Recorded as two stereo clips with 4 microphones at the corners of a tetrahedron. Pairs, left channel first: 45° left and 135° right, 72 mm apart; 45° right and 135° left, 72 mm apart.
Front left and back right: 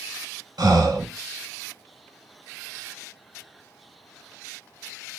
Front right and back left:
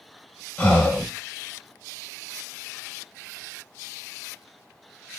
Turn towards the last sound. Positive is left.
turn(degrees=-120)